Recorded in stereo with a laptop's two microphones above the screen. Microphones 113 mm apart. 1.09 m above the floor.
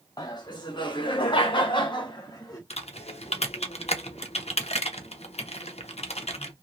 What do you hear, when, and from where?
0.2 s laughter: 35° left (ahead or behind), 1.2 m
2.7 s typing on a keyboard: 70° left (ahead or behind), 0.5 m